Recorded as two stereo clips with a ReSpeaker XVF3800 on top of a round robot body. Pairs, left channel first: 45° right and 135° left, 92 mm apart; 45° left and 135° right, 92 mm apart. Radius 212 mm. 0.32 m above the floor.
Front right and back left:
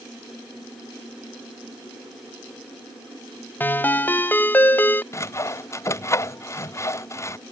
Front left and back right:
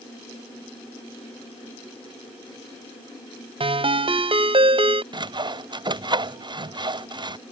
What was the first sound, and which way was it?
A ringtone, 115° right.